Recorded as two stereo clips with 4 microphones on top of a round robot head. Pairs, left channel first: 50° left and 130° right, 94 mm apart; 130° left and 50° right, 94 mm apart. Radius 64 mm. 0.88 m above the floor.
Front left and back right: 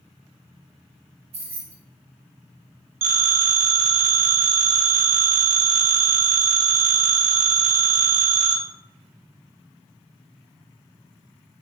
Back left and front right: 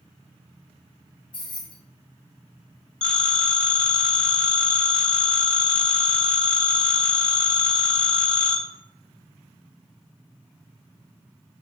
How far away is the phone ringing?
About 1.9 m.